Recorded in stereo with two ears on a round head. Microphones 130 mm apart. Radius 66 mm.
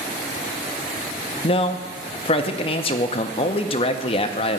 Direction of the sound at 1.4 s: 40° left (ahead or behind).